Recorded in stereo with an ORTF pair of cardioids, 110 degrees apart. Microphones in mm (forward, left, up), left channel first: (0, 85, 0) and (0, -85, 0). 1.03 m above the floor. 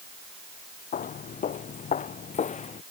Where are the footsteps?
50° left; by 2.8 s 40° left.